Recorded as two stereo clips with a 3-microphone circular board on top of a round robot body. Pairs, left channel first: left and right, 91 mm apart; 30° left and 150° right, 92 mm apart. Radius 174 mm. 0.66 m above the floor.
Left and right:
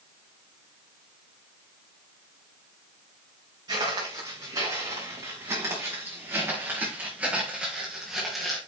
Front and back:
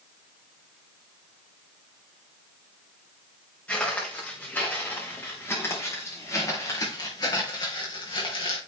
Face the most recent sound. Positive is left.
turn(degrees=0)